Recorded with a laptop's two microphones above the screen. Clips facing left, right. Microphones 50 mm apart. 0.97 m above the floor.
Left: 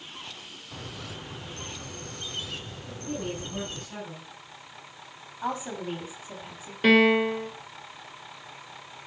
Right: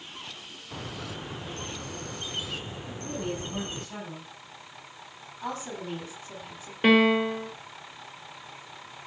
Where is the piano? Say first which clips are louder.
Left 1 dB; 15° right (ahead or behind), 1.7 m.